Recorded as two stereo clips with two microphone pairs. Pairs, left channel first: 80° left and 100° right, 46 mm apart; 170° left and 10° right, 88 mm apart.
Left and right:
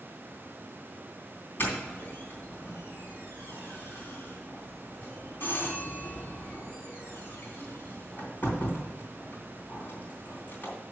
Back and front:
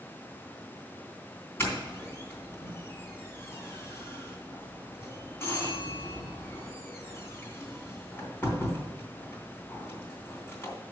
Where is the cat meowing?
I don't hear a cat meowing.